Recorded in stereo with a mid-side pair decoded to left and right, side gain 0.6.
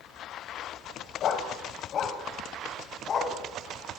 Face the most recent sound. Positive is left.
turn(degrees=40)